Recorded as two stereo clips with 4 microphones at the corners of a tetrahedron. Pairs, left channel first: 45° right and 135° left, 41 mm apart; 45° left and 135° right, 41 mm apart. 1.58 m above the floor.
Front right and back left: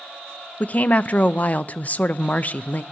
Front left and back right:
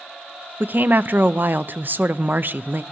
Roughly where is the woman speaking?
Right.